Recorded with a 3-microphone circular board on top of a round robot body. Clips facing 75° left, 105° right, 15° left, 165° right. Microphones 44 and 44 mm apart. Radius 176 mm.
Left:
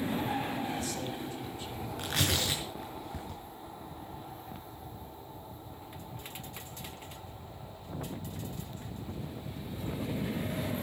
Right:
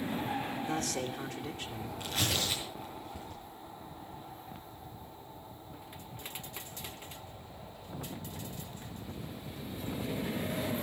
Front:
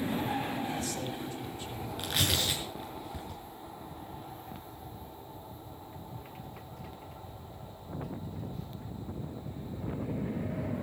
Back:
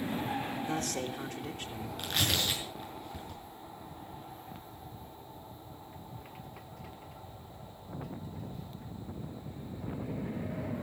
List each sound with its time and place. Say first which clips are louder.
0.7 s a man speaking: right 1 dB, back 1 dB; 140° right, 2 m
2.0 s tearing paper: left 2 dB, even; 100° left, 6.5 m